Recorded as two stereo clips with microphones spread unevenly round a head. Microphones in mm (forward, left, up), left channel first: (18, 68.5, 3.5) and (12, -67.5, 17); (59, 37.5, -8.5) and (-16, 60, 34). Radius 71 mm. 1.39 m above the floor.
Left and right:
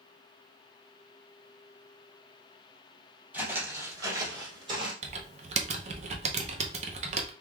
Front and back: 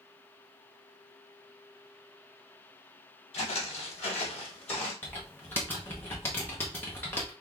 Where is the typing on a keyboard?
110° right, 0.6 m.